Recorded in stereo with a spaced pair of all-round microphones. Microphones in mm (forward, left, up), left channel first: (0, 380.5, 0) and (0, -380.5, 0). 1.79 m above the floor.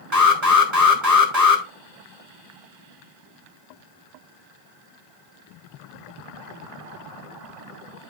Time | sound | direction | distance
0.1 | an alarm | 20° right (ahead or behind) | 4 m